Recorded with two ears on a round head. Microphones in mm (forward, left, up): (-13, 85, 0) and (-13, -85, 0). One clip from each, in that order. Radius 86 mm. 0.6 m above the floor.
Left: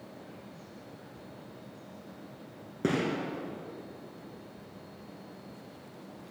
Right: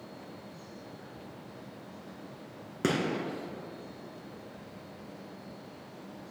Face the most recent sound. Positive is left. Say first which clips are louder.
# even
turn(degrees=-45)  # may be behind; listen again after turning